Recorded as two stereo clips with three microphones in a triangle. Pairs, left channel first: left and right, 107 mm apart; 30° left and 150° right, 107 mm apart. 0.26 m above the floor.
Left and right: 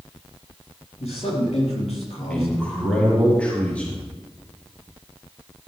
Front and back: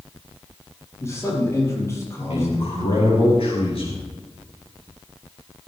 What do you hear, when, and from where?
1.0 s a man speaking: 90° left, 6 m
2.3 s a man speaking: 15° left, 5 m